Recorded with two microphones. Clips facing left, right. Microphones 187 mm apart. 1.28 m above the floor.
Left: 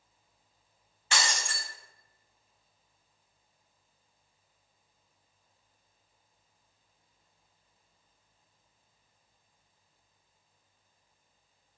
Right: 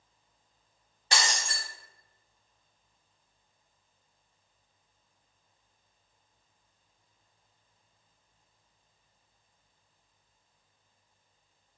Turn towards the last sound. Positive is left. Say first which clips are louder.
# right 1 dB
turn(degrees=-40)  # may be behind; listen again after turning